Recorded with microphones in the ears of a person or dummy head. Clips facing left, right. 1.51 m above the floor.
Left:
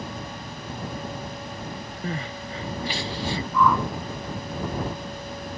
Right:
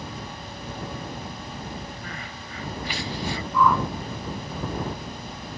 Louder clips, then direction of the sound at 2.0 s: Left 7 dB; 25° left (ahead or behind).